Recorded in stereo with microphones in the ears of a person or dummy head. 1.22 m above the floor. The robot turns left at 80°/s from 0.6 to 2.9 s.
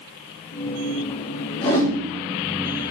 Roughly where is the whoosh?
Left.